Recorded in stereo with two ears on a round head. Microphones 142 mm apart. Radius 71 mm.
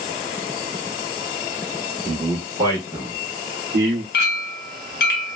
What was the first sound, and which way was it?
A man speaking, 10° right (ahead or behind).